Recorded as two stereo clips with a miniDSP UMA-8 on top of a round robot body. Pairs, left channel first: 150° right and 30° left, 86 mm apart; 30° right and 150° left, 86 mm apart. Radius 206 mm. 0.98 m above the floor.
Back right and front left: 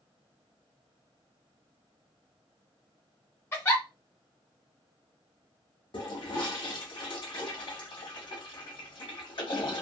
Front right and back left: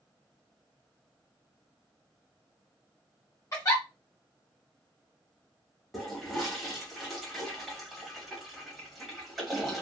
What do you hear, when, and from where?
3.5 s a giggle: 85° right, 0.6 m
5.9 s a toilet flushing: 120° right, 1.0 m